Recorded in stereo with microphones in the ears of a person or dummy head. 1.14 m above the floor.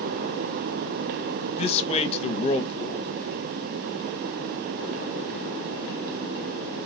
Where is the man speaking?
30° left (ahead or behind), 0.7 m.